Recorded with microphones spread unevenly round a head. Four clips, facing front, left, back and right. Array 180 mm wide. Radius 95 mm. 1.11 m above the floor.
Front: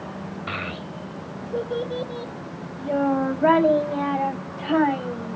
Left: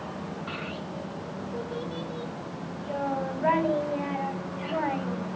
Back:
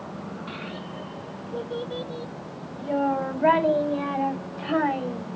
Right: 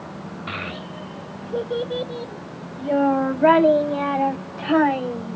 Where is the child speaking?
40° right, 1.0 m; by 5.4 s 75° right, 3.5 m.